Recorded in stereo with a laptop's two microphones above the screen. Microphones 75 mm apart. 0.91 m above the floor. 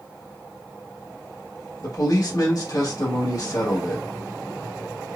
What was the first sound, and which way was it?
A man speaking, 50° left (ahead or behind).